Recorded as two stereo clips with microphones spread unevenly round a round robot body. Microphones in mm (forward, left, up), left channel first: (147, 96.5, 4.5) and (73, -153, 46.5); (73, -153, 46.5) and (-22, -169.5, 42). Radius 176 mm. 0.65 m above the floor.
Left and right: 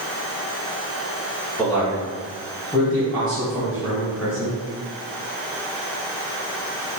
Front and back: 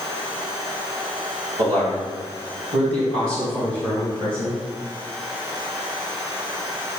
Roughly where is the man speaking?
Behind left.